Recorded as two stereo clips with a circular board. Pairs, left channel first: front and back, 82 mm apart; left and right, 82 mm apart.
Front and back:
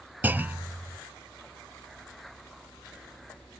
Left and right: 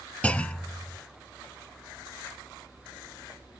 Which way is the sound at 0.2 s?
145° left.